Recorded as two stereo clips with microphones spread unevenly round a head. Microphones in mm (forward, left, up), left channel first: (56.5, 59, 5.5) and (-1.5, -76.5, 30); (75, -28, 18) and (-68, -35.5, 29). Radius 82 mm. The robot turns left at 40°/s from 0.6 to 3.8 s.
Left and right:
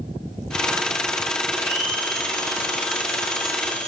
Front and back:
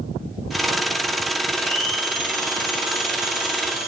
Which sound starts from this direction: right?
A blender, at 1.5 s.